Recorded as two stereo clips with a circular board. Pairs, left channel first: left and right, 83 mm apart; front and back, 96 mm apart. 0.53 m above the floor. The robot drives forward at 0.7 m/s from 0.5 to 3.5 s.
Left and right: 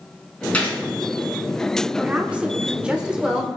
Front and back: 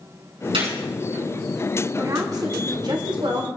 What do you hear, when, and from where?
0.5 s a gunshot: 160° left, 4.5 m
2.0 s a woman speaking: 155° right, 1.5 m; by 3.5 s 170° right, 2.5 m